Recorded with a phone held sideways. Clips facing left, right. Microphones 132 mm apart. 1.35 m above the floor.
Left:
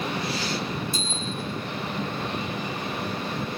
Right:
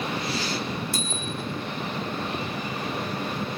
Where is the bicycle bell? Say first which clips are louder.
Even; 70° right (ahead or behind), 5 m.